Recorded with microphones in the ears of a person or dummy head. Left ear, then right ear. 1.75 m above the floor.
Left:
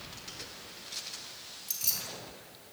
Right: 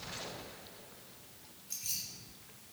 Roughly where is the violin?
No violin in this recording.